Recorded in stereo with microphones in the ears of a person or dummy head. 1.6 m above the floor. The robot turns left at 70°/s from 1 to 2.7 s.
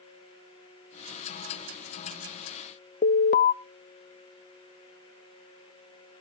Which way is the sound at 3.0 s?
40° left (ahead or behind).